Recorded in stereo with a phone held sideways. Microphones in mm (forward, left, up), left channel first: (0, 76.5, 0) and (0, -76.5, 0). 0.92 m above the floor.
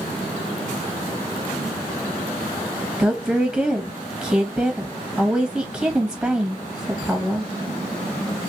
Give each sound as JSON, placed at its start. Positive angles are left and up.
{"t": 3.0, "sound": "a woman speaking", "side_deg": -5, "distance_m": 0.6}